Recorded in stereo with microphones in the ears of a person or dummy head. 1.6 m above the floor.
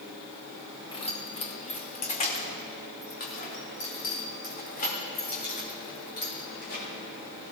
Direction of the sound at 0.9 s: 35° left (ahead or behind).